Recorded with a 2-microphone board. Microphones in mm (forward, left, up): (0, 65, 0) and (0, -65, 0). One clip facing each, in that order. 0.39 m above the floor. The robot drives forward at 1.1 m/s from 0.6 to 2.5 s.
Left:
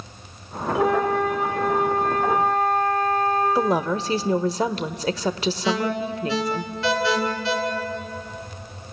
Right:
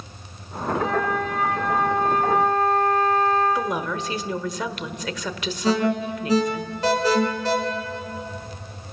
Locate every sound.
0.8 s a flute: 55° left (ahead or behind), 10 m; by 3.5 s 45° left (ahead or behind), 11.5 m
3.5 s a woman speaking: 35° left (ahead or behind), 0.9 m
5.6 s an alarm: 45° right (ahead or behind), 4 m